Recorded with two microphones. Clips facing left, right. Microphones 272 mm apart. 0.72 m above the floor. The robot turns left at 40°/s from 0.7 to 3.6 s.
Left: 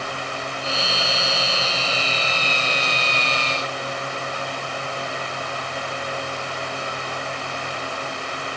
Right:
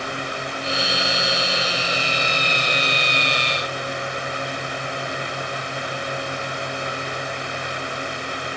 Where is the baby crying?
No baby crying in this recording.